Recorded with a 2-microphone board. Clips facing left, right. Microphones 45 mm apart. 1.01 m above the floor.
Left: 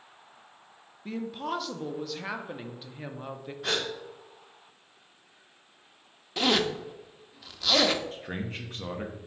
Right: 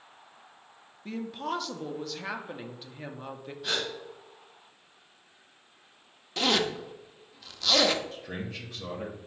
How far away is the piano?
I don't hear a piano.